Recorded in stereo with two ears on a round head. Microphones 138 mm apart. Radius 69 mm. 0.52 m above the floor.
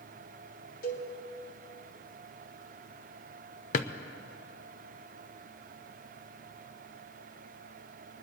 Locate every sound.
0.8 s a cowbell: 65° left (ahead or behind), 2.5 m
3.7 s a drawer: 50° left (ahead or behind), 0.5 m